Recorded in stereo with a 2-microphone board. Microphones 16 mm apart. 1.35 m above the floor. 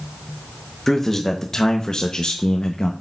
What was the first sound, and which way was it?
A man speaking, 20° left (ahead or behind).